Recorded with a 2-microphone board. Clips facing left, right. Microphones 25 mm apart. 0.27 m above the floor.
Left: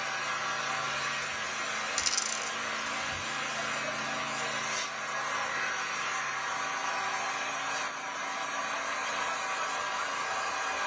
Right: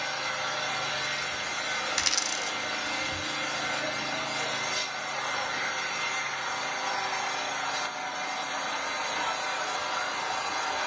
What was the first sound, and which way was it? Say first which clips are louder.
An engine running: right 2 dB; 70° right (ahead or behind).